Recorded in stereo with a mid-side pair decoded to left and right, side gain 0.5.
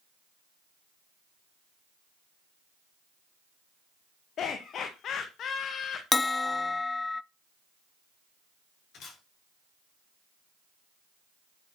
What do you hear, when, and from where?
4.4 s laughter: 55° left, 1.7 m
6.1 s a bell: 25° left, 0.6 m
8.9 s a camera shutter: 60° left, 6 m